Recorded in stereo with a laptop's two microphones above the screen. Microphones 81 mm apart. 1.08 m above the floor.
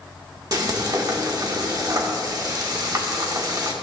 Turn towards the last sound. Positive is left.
turn(degrees=-50)  # may be behind; listen again after turning